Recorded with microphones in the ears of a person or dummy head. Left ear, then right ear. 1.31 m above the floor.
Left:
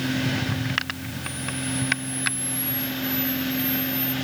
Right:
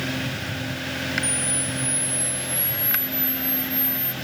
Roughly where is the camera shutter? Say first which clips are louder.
Right 4 dB; right.